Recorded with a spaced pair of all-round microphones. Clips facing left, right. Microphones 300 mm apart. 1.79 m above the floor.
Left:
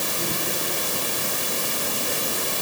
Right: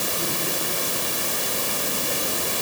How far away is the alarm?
No alarm in this recording.